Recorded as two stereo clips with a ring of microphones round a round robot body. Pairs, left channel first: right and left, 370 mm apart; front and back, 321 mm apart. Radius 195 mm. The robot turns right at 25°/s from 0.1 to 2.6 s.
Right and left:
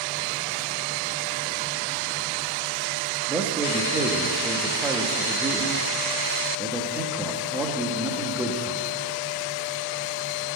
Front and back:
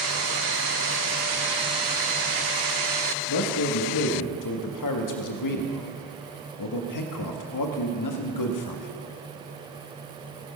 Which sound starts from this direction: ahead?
A man speaking, at 3.3 s.